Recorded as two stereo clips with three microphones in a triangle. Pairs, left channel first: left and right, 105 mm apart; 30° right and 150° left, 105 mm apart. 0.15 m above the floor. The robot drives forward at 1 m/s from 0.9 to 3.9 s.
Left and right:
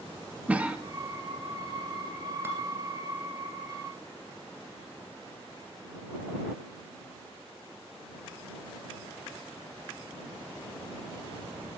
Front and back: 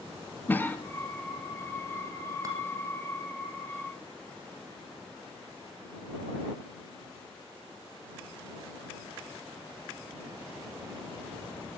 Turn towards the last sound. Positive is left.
turn(degrees=-165)